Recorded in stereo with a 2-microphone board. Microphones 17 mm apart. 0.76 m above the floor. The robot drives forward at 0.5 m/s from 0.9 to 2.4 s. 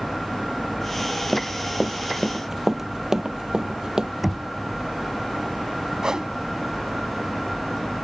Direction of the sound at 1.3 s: Centre (ahead or behind).